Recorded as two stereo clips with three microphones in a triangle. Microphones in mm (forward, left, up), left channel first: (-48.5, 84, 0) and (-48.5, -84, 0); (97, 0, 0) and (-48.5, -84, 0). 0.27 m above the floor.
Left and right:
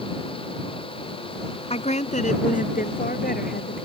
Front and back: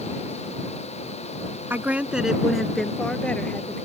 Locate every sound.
1.7 s a woman speaking: 135° left; by 3.9 s 110° left